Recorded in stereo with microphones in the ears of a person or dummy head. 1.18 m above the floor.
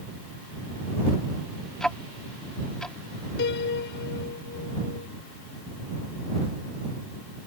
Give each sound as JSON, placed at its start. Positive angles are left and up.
{"t": 1.8, "sound": "ticking", "side_deg": 0}
{"t": 3.4, "sound": "a piano", "side_deg": 55}